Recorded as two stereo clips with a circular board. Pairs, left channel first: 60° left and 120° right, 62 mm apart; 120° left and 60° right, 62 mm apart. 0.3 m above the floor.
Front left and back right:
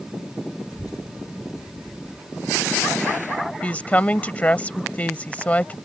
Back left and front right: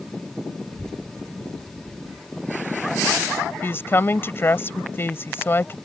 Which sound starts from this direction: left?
A woman speaking, at 3.6 s.